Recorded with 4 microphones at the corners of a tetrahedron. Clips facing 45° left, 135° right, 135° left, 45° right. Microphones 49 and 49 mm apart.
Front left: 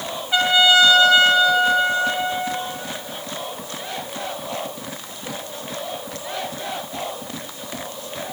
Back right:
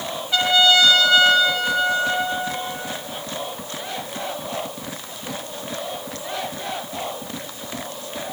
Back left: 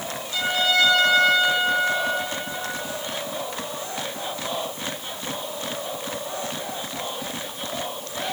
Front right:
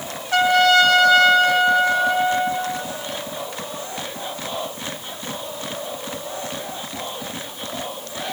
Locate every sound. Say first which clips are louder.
0.3 s a trumpet: front left 1 dB, front right 8 dB; 30° right, 3 m